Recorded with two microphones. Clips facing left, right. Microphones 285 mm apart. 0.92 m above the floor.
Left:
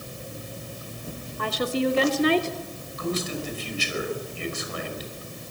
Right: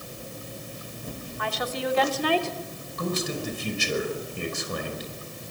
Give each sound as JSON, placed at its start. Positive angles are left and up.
{"t": 1.4, "sound": "a woman speaking", "side_deg": 45, "distance_m": 2.0}
{"t": 3.0, "sound": "a man speaking", "side_deg": -60, "distance_m": 5.5}